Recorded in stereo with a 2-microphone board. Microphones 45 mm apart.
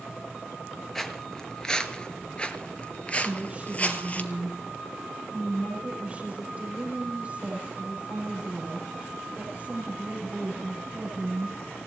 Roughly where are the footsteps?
Centre.